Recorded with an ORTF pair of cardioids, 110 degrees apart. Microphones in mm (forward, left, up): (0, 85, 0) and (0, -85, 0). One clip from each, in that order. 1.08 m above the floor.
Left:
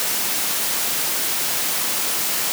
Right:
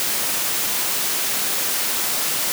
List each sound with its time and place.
Only background noise.